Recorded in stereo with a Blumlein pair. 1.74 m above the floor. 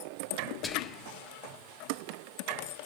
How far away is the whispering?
About 1.7 m.